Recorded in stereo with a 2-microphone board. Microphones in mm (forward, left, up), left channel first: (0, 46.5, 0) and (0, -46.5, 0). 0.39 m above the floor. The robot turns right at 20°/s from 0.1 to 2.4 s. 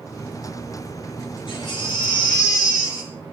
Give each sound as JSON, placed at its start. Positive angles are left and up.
{"t": 1.5, "sound": "a baby crying", "side_deg": 60, "distance_m": 3.0}